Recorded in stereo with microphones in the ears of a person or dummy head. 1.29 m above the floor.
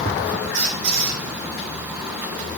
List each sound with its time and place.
0.5 s a squeak: 55° right (ahead or behind), 1.1 m